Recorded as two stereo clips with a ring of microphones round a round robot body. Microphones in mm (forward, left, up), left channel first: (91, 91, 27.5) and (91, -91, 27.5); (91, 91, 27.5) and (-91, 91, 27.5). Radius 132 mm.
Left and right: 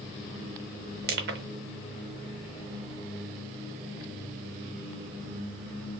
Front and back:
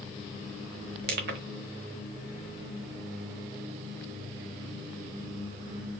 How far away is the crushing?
About 0.9 m.